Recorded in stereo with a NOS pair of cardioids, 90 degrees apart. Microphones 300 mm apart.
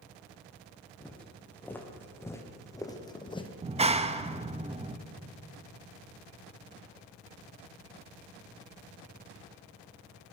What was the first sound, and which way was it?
Footsteps, 5° left.